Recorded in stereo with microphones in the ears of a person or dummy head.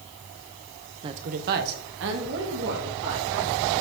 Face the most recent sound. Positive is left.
turn(degrees=-80)